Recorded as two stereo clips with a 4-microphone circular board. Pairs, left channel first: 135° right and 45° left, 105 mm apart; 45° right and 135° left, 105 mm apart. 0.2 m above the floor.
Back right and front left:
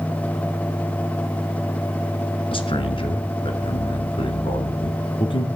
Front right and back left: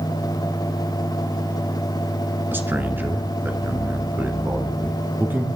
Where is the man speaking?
155° right, 2.0 m.